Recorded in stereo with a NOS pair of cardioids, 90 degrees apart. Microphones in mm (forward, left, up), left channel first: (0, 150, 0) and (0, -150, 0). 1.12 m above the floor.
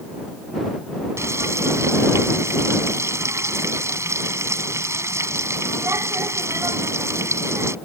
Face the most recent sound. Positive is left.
turn(degrees=-10)